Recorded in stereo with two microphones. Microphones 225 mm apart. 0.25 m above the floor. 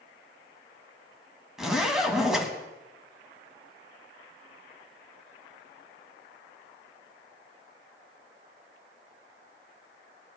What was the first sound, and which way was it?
A zipper, centre (ahead or behind).